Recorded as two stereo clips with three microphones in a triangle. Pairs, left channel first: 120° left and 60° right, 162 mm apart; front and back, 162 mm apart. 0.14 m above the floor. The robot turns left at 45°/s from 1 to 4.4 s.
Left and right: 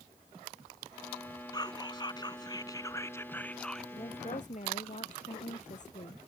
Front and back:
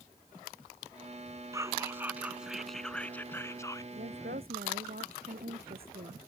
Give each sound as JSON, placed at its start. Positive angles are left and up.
{"t": 1.5, "sound": "whispering", "azimuth_deg": 140}
{"t": 4.0, "sound": "a woman speaking", "azimuth_deg": 180}